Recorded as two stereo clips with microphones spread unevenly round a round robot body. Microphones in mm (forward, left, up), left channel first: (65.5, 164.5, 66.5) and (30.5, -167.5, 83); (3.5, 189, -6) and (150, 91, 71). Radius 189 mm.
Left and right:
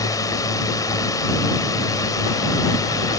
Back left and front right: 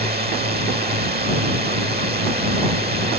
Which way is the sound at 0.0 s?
5° left.